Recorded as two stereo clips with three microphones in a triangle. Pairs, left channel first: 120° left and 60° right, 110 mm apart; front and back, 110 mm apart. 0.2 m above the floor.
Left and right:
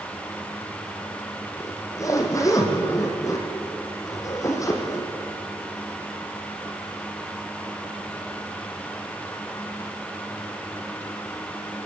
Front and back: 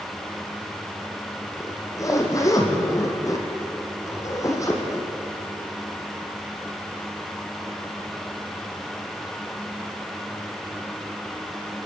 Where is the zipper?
60° left, 3.5 m.